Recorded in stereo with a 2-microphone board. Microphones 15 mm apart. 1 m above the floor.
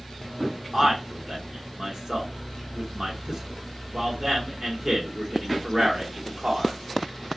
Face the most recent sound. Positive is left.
turn(degrees=-40)  # may be behind; listen again after turning